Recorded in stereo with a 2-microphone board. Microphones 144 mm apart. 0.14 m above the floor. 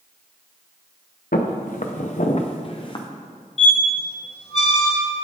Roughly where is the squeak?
Left.